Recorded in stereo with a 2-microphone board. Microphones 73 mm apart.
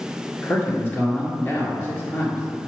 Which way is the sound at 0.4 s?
30° left (ahead or behind).